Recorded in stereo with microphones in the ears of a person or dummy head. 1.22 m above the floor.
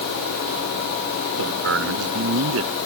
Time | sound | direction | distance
1.4 | a man speaking | 80° right | ?